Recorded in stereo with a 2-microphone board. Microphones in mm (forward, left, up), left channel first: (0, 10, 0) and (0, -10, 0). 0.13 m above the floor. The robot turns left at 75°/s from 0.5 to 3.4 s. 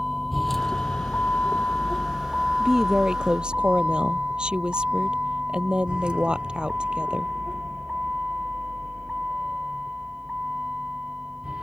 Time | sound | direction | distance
0.0 | a vehicle | centre (ahead or behind) | ?
2.6 | a woman speaking | 10° right | ?